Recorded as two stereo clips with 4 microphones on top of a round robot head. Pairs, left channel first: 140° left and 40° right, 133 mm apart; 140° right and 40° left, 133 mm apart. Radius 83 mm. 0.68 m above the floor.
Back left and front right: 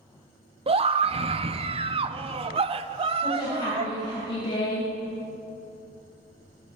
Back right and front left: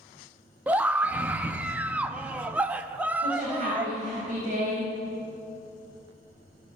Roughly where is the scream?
Ahead right.